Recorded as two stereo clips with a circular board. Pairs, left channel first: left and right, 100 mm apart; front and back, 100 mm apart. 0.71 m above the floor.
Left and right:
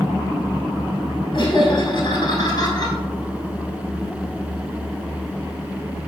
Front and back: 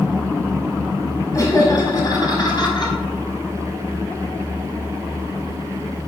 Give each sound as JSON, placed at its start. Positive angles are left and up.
{"t": 1.3, "sound": "laughter", "azimuth_deg": 55, "distance_m": 5.5}